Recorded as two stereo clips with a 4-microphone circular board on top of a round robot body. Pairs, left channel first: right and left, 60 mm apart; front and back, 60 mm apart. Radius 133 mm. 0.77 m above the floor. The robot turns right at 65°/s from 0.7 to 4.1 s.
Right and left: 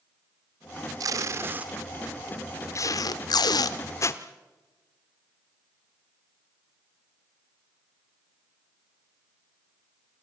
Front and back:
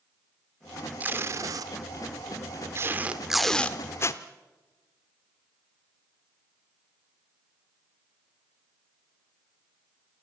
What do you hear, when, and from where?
1.0 s tape being pulled: 115° left, 0.7 m; by 4.2 s 45° right, 0.7 m